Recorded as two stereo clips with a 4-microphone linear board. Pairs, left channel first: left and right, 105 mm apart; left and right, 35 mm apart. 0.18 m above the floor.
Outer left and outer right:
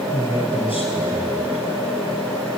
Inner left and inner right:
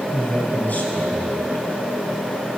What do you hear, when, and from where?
0.1 s a man speaking: 65° left (ahead or behind), 3.5 m